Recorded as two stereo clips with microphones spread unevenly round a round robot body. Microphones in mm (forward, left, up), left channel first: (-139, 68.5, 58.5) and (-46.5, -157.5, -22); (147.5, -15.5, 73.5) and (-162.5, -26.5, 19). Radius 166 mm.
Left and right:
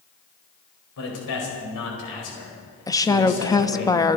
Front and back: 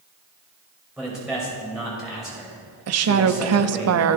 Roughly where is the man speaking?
Left.